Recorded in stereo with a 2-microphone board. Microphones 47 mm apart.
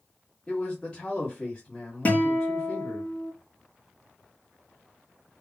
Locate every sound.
0.5 s a man speaking: 20° left (ahead or behind), 1.7 m
2.0 s a guitar: 35° left (ahead or behind), 1.6 m